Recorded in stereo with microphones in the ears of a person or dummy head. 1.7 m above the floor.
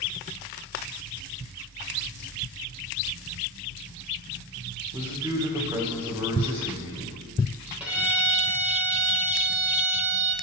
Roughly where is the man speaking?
Right.